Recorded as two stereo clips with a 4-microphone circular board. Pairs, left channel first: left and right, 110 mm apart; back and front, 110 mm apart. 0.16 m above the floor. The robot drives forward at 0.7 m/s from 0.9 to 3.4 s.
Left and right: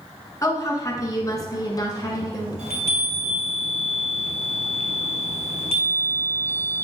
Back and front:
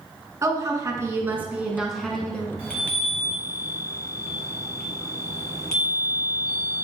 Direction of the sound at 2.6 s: 100° right.